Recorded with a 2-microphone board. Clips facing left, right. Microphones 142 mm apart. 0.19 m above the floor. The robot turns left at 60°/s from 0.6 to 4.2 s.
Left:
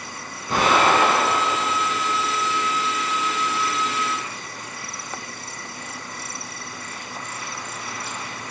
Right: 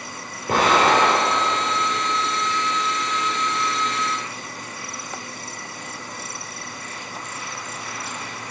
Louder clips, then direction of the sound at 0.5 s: Right 1 dB; 55° right.